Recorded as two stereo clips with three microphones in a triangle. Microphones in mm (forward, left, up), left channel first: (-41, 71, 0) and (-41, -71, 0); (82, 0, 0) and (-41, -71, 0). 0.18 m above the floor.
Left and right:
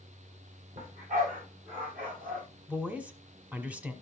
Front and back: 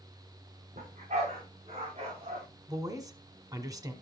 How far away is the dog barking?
About 5.5 m.